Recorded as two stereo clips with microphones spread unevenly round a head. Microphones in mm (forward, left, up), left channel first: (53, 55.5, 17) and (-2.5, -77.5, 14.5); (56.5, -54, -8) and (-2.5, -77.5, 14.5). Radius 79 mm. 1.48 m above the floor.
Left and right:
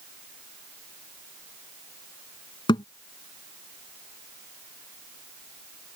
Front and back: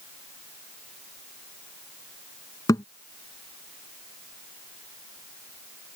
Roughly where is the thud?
Ahead left.